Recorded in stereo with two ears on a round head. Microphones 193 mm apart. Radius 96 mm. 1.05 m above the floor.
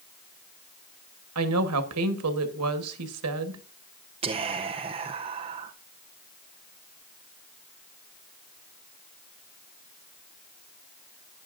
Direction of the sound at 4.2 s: 25° right (ahead or behind).